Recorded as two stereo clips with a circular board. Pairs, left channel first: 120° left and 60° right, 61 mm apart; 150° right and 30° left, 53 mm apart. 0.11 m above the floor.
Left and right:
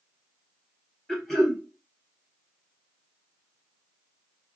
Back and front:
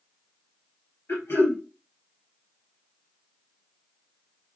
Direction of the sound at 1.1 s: 160° right.